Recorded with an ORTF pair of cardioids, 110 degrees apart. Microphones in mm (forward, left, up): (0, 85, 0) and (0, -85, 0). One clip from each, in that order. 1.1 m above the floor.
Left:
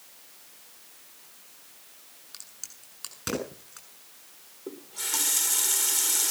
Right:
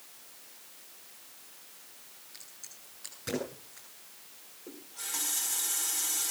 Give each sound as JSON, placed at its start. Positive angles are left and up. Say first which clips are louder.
{"t": 2.3, "sound": "a crack", "louder": "left 6 dB", "azimuth_deg": 65, "distance_m": 7.0}
{"t": 4.7, "sound": "a running tap", "louder": "left 7 dB", "azimuth_deg": 55, "distance_m": 2.0}